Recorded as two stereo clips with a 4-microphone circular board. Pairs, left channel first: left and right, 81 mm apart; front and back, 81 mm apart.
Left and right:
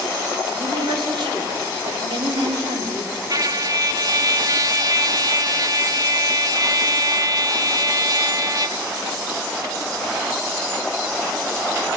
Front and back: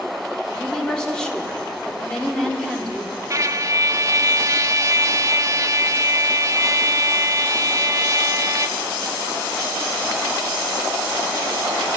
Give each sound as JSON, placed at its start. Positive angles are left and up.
{"t": 0.5, "sound": "a woman speaking", "azimuth_deg": -80, "distance_m": 3.0}
{"t": 3.3, "sound": "a trumpet", "azimuth_deg": -130, "distance_m": 0.6}